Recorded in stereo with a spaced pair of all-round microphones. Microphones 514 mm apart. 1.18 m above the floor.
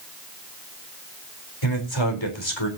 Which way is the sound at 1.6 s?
60° left (ahead or behind).